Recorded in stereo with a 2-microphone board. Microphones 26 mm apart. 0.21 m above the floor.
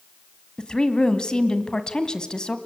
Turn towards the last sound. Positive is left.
turn(degrees=30)  # may be behind; listen again after turning